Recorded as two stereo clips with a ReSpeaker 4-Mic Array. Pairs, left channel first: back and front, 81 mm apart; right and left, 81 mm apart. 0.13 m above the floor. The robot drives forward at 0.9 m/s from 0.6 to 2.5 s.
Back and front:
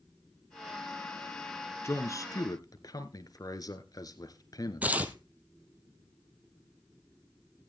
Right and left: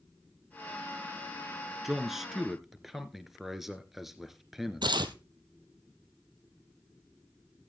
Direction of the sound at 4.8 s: 70° left.